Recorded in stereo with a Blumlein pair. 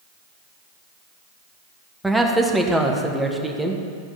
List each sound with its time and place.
2.0 s a man speaking: 5° right, 1.4 m